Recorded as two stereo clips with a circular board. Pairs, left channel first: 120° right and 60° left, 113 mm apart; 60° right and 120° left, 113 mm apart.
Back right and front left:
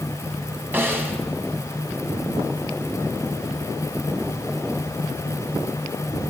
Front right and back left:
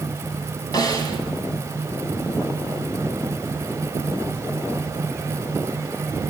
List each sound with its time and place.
0.7 s a snare drum: 10° right, 3 m